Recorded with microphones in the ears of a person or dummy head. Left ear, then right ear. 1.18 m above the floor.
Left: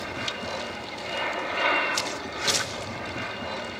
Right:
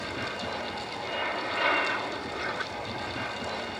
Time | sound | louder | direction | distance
0.0 | an aircraft | left 2 dB | 5° left (ahead or behind) | ?